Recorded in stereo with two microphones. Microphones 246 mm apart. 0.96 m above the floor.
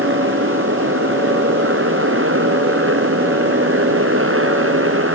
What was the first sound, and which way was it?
A motorcycle, 55° right (ahead or behind).